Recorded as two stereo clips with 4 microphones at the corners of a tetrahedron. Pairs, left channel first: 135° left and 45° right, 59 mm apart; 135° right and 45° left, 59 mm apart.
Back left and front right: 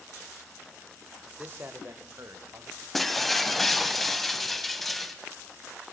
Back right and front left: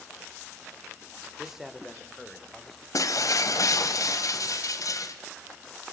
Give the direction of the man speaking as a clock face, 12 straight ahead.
1 o'clock.